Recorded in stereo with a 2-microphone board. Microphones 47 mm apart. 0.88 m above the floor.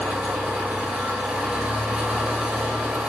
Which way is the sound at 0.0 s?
25° right (ahead or behind).